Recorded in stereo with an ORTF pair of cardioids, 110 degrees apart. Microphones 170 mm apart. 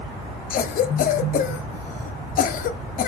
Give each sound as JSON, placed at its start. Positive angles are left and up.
{"t": 0.5, "sound": "a cough", "azimuth_deg": 55, "distance_m": 2.0}